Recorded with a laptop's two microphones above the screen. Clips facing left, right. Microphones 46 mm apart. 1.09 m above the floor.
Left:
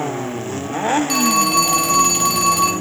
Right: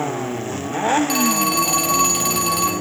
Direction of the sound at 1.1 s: Centre (ahead or behind).